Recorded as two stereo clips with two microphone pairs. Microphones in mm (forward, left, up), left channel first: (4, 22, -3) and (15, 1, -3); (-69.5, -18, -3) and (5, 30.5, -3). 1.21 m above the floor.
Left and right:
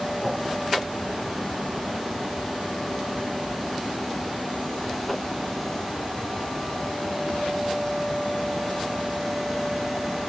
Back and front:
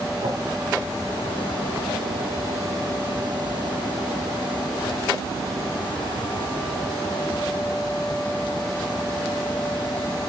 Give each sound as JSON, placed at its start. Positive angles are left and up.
{"t": 0.2, "sound": "a whoosh", "azimuth_deg": 20, "distance_m": 1.7}